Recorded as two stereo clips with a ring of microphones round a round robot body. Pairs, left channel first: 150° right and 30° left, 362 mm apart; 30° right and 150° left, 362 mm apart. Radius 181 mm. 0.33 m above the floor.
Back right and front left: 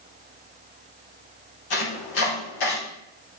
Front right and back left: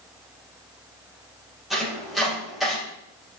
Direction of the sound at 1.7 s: 120° right.